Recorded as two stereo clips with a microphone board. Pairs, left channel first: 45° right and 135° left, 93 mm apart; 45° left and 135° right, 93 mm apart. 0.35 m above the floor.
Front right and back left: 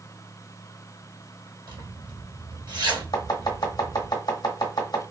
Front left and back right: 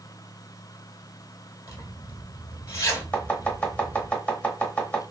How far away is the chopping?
About 0.9 m.